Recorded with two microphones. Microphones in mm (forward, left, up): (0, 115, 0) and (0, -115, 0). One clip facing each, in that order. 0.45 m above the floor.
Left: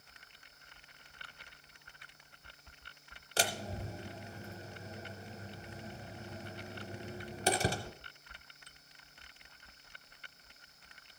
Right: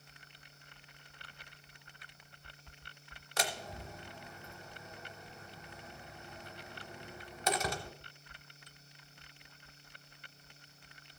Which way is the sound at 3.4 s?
30° left (ahead or behind).